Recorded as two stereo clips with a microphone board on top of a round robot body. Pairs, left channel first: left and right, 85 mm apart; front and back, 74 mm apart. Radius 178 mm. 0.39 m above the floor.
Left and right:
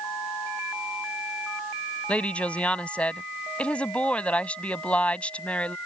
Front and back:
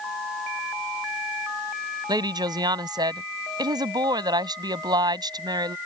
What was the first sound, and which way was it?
A woman speaking, 165° left.